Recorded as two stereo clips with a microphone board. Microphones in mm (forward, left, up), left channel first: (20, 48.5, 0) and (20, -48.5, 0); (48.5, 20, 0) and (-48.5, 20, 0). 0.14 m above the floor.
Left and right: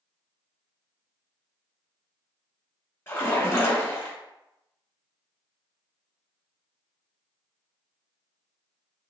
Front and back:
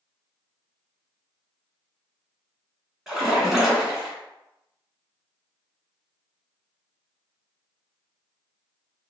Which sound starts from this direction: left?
A splash, at 3.1 s.